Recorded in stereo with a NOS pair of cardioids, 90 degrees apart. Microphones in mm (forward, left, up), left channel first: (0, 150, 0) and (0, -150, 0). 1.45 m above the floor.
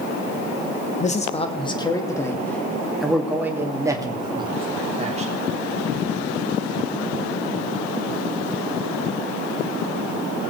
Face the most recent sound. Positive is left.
turn(degrees=-25)